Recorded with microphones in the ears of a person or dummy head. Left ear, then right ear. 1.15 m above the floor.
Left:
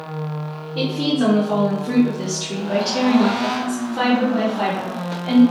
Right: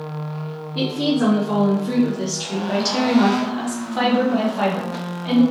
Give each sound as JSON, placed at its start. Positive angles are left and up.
{"t": 0.8, "sound": "a woman speaking", "side_deg": -10, "distance_m": 1.3}